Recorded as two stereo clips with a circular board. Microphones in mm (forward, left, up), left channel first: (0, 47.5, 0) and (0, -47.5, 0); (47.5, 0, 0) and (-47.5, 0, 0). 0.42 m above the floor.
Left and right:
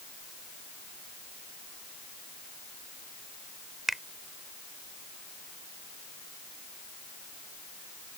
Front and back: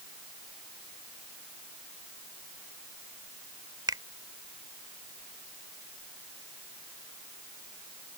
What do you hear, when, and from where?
3.9 s a finger snap: straight behind